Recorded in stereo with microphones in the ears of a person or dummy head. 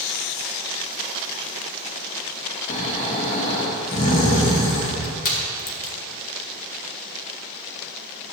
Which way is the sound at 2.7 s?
30° left (ahead or behind).